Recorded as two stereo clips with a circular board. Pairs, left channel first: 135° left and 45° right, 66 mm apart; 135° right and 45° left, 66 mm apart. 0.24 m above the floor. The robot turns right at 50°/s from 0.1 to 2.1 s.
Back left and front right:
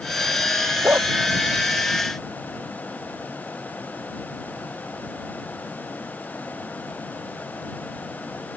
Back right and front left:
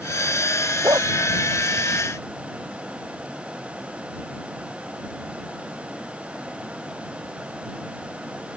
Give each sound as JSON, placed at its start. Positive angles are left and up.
{"t": 0.8, "sound": "a dog barking", "azimuth_deg": 10}